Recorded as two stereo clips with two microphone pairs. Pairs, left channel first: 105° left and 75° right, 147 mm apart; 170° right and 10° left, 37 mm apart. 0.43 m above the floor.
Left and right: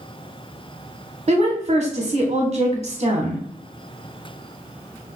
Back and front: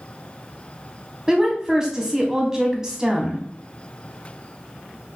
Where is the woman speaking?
65° right, 1.0 m.